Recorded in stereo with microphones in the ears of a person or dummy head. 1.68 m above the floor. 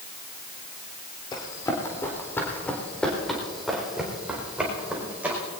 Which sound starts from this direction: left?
Running footsteps, at 1.3 s.